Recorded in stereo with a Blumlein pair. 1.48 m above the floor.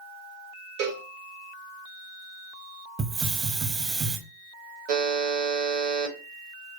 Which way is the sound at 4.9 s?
45° right.